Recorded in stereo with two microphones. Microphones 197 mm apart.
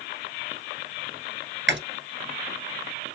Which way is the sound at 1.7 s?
75° right (ahead or behind).